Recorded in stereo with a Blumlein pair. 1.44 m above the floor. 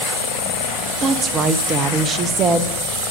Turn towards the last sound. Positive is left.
turn(degrees=-25)